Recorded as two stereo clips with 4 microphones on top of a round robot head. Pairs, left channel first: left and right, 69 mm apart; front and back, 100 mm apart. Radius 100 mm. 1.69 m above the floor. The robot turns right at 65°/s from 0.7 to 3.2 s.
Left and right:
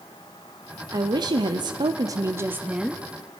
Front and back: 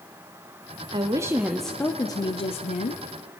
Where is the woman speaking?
130° right, 0.9 m; by 3.0 s 5° left, 0.9 m.